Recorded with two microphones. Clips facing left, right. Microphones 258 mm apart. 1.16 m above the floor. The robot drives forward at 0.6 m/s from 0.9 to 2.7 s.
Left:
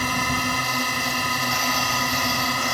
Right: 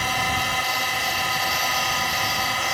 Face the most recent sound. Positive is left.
turn(degrees=45)  # may be behind; listen again after turning